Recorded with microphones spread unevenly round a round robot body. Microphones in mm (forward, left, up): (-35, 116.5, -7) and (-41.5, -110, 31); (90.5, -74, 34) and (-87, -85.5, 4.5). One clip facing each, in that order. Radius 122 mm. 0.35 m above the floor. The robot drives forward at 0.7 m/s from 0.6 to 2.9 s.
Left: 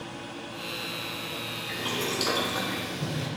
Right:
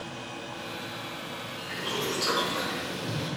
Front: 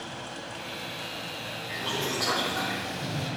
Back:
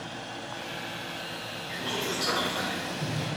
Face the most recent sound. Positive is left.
turn(degrees=115)